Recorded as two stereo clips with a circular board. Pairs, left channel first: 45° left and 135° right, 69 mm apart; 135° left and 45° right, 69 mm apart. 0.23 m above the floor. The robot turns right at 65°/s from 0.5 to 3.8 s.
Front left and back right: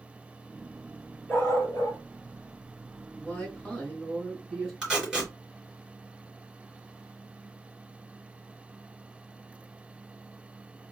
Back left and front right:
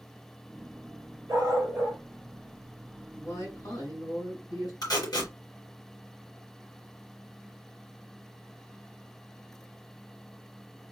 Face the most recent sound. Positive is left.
turn(degrees=145)